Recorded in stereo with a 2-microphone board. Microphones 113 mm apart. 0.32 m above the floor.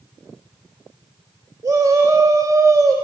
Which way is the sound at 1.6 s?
35° right (ahead or behind).